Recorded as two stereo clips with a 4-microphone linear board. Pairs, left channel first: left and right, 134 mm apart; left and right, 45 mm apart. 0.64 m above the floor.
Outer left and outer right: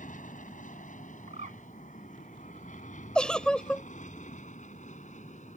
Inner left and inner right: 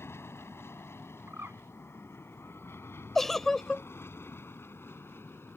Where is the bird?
70° right (ahead or behind).